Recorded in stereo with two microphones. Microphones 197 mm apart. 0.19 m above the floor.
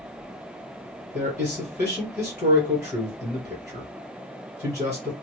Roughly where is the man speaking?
Left.